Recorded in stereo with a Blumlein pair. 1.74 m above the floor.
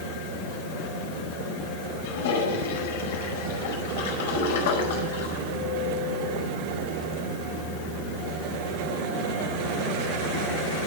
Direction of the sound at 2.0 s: 55° left.